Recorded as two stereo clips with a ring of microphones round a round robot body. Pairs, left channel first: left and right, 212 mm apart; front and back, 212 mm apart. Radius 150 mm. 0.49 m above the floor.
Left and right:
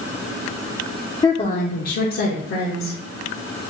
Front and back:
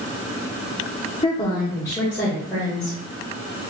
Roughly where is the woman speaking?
Ahead left.